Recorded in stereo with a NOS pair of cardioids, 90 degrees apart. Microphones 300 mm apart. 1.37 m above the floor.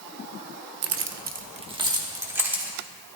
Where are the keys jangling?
60° right, 0.6 m; by 2.7 s 5° right, 2 m.